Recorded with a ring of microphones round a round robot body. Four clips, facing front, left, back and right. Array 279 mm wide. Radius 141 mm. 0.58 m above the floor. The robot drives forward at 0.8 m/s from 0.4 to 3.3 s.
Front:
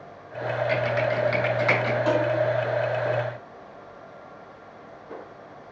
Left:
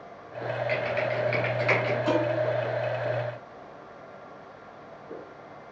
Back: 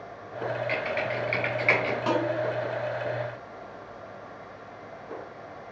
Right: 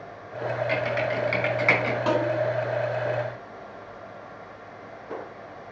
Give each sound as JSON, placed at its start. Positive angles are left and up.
{"t": 0.7, "sound": "typing on a keyboard", "azimuth_deg": -30, "distance_m": 4.5}
{"t": 2.1, "sound": "dishes clattering", "azimuth_deg": -110, "distance_m": 4.5}